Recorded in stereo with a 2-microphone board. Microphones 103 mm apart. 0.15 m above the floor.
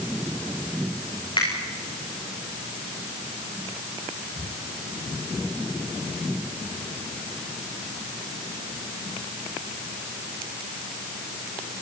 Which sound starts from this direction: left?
A finger snap, at 1.4 s.